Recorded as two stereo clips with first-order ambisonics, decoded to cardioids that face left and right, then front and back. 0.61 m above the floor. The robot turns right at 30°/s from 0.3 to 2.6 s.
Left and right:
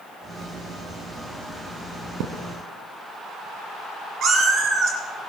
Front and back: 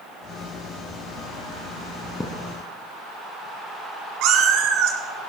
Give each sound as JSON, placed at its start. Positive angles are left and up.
{"t": 2.2, "sound": "a thud", "azimuth_deg": -75, "distance_m": 1.0}
{"t": 4.2, "sound": "a cat meowing", "azimuth_deg": -145, "distance_m": 2.0}